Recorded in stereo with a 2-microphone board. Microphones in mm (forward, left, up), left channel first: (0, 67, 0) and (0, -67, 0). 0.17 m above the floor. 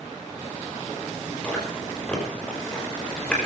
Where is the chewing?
5° left (ahead or behind), 5.5 m.